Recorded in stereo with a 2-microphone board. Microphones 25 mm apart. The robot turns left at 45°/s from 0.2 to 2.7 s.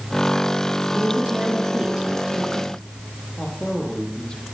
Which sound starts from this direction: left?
A man speaking, at 3.4 s.